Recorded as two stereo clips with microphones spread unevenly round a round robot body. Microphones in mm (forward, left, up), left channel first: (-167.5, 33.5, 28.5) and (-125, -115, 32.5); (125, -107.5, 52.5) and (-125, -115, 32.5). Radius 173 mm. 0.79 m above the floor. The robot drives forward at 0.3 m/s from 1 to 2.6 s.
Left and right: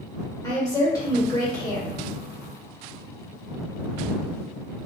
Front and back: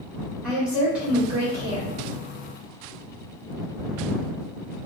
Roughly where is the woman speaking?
Behind left.